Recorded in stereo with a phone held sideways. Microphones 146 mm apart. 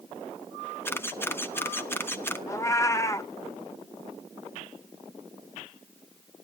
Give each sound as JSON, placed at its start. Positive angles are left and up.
{"t": 0.8, "sound": "a camera shutter", "side_deg": 15, "distance_m": 1.0}
{"t": 2.5, "sound": "a cat meowing", "side_deg": 20, "distance_m": 0.8}